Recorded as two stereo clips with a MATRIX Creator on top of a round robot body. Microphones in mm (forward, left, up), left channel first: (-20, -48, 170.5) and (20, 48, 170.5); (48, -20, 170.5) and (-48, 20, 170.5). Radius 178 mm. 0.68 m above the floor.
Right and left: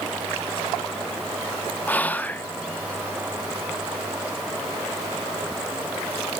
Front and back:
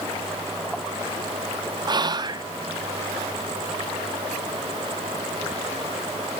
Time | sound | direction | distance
1.9 | whispering | straight behind | 1.3 m